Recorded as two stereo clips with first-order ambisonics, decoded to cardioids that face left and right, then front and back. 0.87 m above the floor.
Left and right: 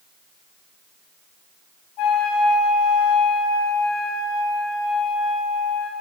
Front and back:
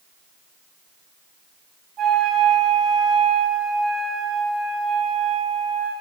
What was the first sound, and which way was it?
A flute, 120° left.